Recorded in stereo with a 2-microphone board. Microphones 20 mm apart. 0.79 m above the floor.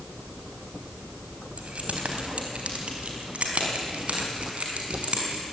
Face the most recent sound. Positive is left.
turn(degrees=-80)